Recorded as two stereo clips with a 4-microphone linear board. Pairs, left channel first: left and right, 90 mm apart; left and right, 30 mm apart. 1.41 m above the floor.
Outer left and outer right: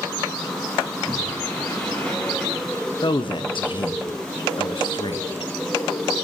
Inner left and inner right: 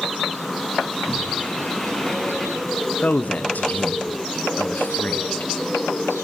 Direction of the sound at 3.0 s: 70° left (ahead or behind).